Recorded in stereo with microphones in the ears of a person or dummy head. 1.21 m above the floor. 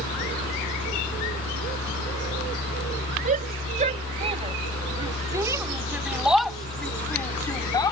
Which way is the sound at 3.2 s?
30° right (ahead or behind).